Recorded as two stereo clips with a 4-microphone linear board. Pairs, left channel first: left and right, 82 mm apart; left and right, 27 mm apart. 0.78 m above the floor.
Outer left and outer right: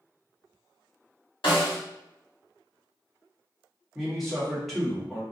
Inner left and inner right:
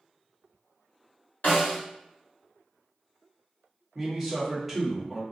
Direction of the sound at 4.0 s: 5° left (ahead or behind).